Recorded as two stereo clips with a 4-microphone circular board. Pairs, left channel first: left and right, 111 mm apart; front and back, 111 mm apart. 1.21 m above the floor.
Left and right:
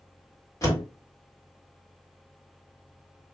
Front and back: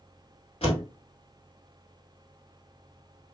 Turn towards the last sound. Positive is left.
turn(degrees=35)